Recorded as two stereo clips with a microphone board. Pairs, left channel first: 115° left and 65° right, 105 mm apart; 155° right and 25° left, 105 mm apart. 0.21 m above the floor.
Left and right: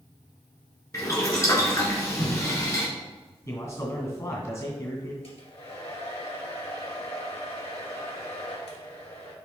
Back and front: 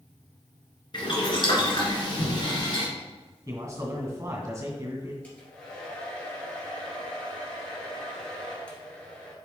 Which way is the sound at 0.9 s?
170° left.